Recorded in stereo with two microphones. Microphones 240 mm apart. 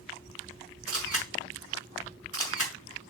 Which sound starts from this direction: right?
A camera shutter, at 0.9 s.